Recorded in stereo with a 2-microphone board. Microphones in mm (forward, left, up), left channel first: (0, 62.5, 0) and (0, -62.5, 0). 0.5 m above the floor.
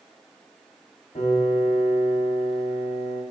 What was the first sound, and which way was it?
A piano, 55° left (ahead or behind).